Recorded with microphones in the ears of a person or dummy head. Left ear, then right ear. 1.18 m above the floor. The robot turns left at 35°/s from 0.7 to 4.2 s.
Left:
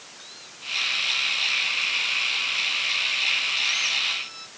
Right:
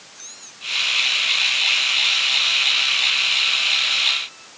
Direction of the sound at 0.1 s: 145° right.